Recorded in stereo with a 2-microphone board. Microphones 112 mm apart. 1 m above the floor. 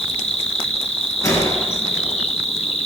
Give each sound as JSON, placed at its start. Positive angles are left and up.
{"t": 0.0, "sound": "an insect", "side_deg": 70, "distance_m": 2.0}
{"t": 1.2, "sound": "a gunshot", "side_deg": 30, "distance_m": 3.0}